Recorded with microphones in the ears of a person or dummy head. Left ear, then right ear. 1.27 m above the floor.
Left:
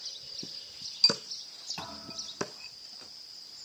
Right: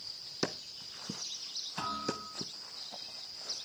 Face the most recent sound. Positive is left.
turn(degrees=0)  # may be behind; listen again after turning